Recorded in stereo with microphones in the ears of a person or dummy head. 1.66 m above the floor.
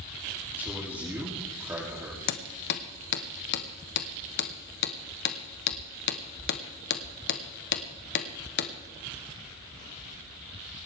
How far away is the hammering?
About 1.0 m.